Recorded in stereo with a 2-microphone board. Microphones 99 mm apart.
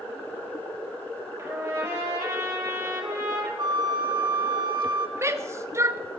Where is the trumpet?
25° right (ahead or behind), 4.5 m.